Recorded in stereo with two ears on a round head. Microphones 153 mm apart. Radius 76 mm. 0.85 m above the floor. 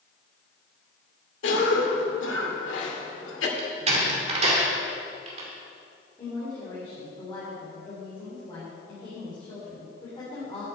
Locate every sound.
1.4 s a cough: 80° left, 2 m
3.6 s a door slam: 35° right (ahead or behind), 2 m
6.2 s a woman speaking: 25° left (ahead or behind), 3 m